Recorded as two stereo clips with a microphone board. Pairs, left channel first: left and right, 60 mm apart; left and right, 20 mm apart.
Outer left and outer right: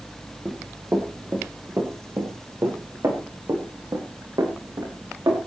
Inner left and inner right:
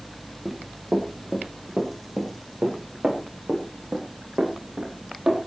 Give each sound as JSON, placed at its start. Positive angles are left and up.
{"t": 0.5, "sound": "running footsteps", "side_deg": -25, "distance_m": 4.0}